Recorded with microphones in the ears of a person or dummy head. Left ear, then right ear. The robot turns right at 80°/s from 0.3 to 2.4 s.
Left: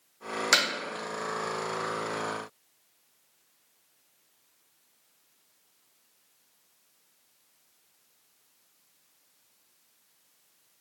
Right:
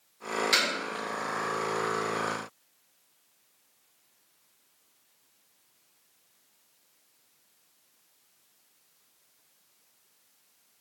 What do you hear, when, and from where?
0.5 s hammering: 45° left (ahead or behind), 0.9 m; by 0.7 s 35° left (ahead or behind), 0.9 m